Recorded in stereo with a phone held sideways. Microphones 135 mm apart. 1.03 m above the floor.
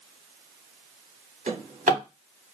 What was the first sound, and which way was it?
A drawer, 70° right (ahead or behind).